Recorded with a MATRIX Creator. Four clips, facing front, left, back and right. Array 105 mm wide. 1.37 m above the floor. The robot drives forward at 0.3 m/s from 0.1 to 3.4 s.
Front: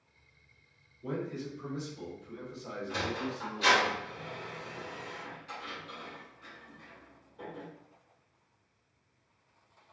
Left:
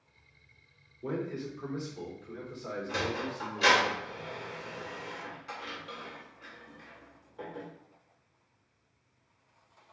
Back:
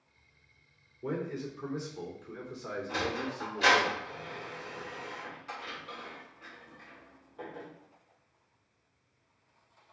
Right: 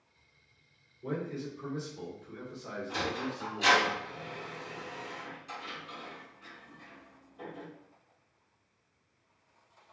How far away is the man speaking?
About 2 m.